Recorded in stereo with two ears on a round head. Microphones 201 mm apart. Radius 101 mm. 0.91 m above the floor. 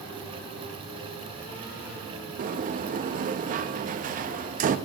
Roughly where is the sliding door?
Right.